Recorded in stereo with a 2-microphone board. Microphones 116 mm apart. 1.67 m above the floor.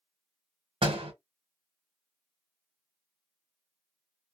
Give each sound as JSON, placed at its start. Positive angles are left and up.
{"t": 0.8, "sound": "a door slam", "side_deg": -50, "distance_m": 1.0}